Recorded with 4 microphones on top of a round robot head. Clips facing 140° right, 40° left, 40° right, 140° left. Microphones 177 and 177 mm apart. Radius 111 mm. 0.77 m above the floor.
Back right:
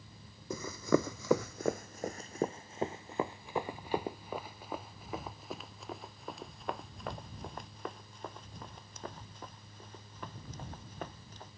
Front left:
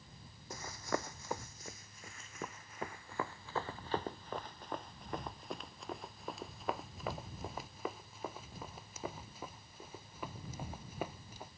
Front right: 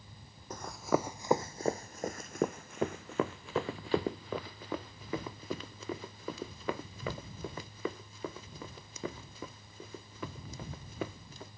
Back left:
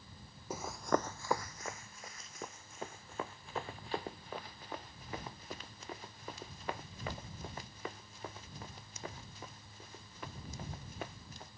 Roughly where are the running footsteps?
Behind right.